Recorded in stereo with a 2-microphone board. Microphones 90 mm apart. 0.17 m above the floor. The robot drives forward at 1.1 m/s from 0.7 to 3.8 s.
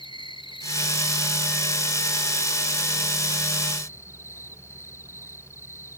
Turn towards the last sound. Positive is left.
turn(degrees=30)  # may be behind; listen again after turning